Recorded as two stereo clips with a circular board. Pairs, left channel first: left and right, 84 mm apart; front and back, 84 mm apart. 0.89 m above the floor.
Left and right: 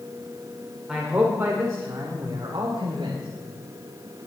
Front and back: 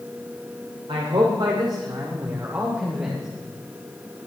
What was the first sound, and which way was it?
A man speaking, 170° right.